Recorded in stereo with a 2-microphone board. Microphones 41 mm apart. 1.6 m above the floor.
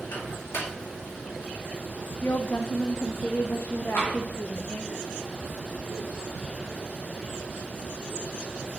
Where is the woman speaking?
70° left (ahead or behind), 0.6 m.